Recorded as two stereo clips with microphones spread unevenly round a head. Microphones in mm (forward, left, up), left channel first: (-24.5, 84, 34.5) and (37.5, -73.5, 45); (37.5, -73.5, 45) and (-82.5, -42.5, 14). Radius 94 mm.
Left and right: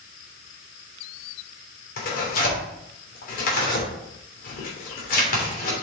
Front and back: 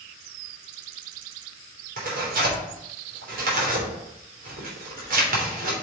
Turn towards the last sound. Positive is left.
turn(degrees=155)